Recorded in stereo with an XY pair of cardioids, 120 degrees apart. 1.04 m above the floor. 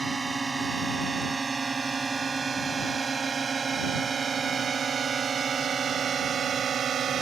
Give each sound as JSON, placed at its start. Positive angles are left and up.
{"t": 0.0, "sound": "a drone", "azimuth_deg": -20}